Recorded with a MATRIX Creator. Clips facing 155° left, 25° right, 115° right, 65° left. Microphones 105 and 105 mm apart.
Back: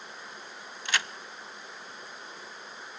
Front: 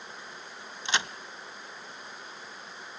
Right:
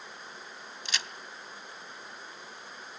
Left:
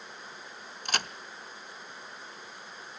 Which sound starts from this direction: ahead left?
A crack, at 0.8 s.